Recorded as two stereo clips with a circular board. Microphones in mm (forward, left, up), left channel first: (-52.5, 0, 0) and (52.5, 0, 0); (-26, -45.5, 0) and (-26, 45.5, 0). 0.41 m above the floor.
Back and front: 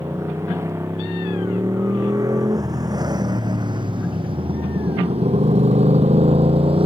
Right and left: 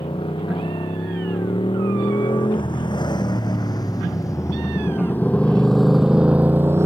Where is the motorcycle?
65° right; by 6.9 s 30° left.